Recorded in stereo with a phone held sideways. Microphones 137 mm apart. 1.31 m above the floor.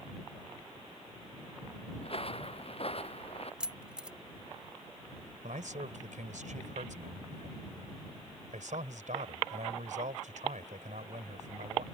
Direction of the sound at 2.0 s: 50° left (ahead or behind).